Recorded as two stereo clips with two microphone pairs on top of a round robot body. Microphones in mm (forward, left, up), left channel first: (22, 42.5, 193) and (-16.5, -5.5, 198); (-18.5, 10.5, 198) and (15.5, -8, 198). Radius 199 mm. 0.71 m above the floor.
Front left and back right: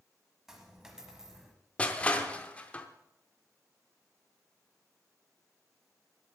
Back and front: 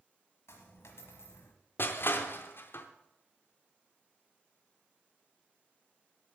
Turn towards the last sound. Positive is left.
turn(degrees=125)